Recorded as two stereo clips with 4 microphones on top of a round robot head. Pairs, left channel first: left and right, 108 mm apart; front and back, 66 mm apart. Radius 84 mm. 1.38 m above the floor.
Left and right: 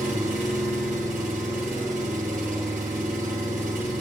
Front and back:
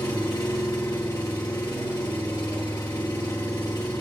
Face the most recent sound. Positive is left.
turn(degrees=-65)